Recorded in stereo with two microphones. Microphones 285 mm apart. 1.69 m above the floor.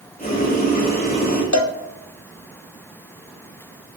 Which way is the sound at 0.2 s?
30° left (ahead or behind).